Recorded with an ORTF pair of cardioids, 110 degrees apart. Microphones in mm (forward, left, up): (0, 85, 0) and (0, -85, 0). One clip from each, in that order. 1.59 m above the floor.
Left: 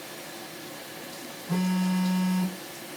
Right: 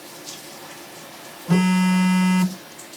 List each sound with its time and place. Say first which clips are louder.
1.5 s a phone buzzing: right 9 dB; 60° right, 0.6 m